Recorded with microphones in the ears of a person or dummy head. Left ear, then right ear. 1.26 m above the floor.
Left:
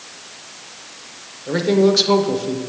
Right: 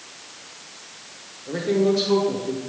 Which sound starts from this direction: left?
A man speaking, at 1.5 s.